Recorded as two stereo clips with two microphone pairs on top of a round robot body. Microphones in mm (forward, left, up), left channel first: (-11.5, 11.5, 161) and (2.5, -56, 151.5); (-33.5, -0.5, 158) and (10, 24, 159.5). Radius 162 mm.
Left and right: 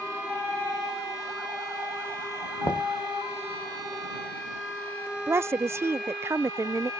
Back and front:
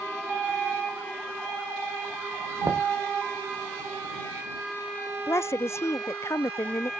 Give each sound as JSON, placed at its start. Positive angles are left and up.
{"t": 2.6, "sound": "knocking", "azimuth_deg": 60}
{"t": 5.3, "sound": "a woman speaking", "azimuth_deg": -125}